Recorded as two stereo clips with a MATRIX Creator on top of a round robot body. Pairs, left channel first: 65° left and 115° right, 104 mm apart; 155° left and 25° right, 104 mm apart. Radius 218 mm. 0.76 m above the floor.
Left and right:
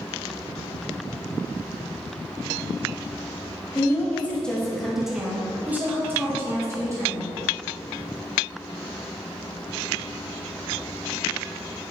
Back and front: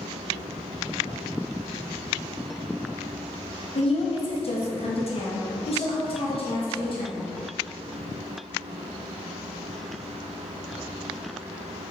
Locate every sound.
3.8 s a woman speaking: 135° left, 1.7 m; by 7.3 s 170° right, 3 m